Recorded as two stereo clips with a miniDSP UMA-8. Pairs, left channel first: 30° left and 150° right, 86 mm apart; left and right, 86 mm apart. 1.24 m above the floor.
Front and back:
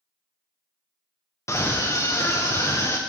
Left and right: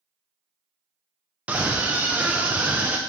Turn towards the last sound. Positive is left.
turn(degrees=-20)